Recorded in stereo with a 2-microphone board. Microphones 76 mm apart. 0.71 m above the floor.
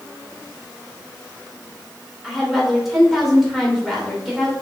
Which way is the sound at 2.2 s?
Centre (ahead or behind).